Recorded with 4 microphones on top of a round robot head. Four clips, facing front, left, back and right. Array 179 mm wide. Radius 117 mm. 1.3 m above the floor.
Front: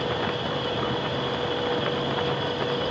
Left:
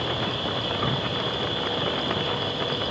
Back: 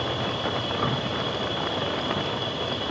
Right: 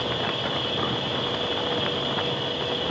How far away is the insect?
About 1.5 m.